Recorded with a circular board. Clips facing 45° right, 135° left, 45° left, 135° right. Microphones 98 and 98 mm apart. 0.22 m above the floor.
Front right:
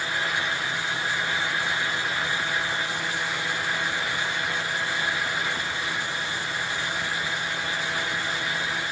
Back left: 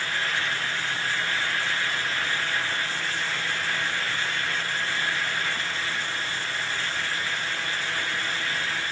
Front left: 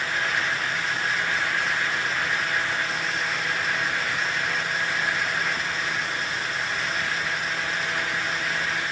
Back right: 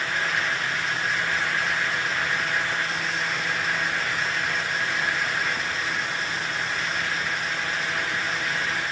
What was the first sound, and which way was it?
Only background noise.